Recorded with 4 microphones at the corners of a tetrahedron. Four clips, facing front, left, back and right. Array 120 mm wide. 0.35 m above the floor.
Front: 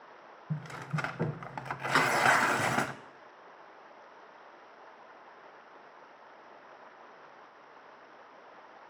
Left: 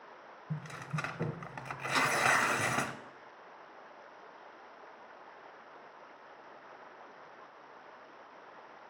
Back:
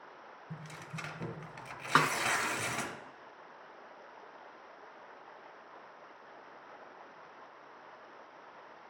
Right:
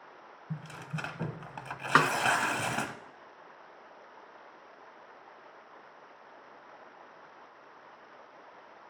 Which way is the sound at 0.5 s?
10° right.